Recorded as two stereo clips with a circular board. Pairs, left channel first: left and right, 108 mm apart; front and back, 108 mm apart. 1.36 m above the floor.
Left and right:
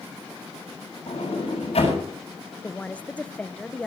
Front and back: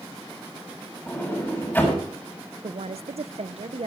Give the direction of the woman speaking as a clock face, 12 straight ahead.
6 o'clock.